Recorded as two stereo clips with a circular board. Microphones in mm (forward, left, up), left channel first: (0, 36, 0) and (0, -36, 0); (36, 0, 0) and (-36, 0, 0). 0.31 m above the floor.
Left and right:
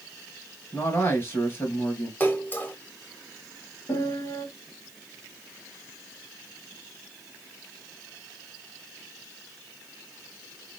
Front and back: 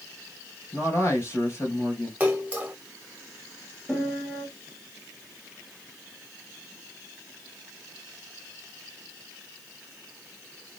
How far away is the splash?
About 0.9 m.